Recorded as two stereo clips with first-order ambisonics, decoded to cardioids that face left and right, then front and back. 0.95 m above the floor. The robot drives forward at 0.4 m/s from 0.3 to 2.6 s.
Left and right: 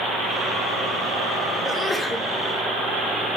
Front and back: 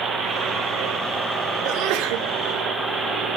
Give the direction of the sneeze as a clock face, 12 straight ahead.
6 o'clock.